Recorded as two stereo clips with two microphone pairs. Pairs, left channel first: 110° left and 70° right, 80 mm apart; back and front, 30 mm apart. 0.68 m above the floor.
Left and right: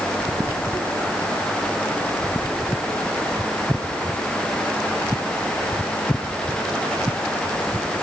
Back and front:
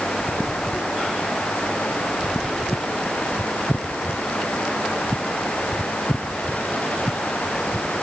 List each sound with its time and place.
Only background noise.